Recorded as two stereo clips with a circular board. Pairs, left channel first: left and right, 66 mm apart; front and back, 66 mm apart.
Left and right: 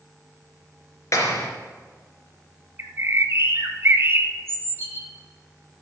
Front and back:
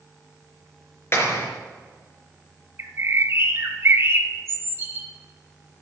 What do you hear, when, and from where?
1.1 s a clap: 50° left, 3 m
2.8 s a bird: 135° right, 1.2 m